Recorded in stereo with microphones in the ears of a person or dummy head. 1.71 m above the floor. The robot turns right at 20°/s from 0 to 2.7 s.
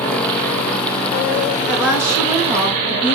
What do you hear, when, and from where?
1.7 s a woman speaking: centre (ahead or behind), 3 m; by 3.1 s 20° right (ahead or behind), 3 m